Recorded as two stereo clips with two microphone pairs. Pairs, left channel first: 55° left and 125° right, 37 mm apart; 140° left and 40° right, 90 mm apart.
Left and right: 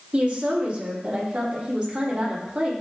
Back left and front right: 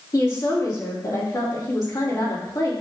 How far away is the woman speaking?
About 5 m.